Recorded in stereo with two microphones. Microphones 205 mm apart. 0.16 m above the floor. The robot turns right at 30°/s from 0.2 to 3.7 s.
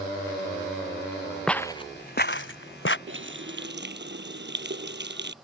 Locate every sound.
1.5 s footsteps: 5° left (ahead or behind); by 3.0 s 65° left (ahead or behind)
3.1 s a running tap: 75° right (ahead or behind); by 5.3 s 60° right (ahead or behind)